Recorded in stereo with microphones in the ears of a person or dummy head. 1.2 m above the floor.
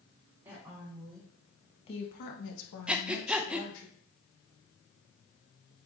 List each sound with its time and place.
0.5 s a woman speaking: 20° right (ahead or behind), 2.5 m; by 3.9 s 70° left (ahead or behind), 2.5 m
2.9 s breathing: 5° right (ahead or behind), 0.6 m